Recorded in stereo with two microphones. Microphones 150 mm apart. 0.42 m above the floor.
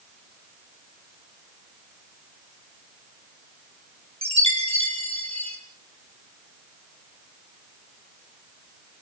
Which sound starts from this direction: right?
A chime, at 4.2 s.